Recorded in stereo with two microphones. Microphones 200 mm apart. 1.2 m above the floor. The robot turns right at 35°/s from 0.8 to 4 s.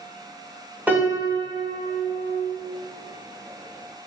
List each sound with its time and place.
0.9 s a piano: 175° right, 1.0 m; by 2.5 s 115° right, 1.0 m